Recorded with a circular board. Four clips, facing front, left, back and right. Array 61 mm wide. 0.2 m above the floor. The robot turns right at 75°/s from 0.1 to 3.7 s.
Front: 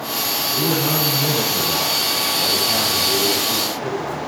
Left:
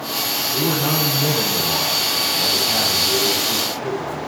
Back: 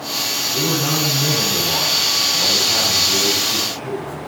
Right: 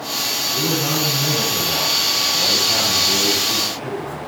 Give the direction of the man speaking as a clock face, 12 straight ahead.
9 o'clock.